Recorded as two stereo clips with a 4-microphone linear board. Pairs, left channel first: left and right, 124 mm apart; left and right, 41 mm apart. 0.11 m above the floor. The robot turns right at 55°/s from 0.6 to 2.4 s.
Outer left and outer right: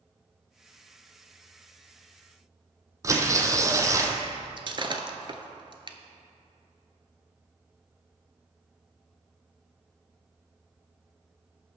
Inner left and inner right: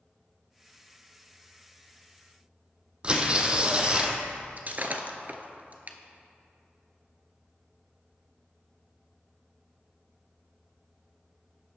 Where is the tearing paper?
25° right (ahead or behind), 1.0 m.